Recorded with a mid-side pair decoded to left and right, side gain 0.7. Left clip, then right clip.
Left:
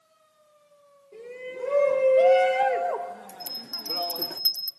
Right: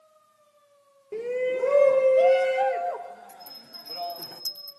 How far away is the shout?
About 0.8 m.